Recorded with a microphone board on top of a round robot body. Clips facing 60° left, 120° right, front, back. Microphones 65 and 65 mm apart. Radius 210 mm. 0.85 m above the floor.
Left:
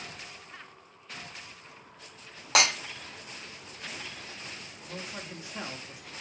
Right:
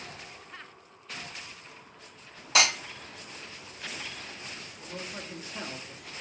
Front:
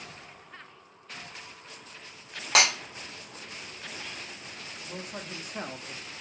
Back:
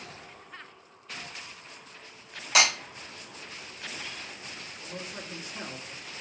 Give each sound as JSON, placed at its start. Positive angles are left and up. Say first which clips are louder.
{"t": 2.5, "sound": "breaking glass", "louder": "even, even", "azimuth_deg": 35, "distance_m": 1.9}
{"t": 4.8, "sound": "a man speaking", "louder": "right 1 dB, front 1 dB", "azimuth_deg": -5, "distance_m": 1.3}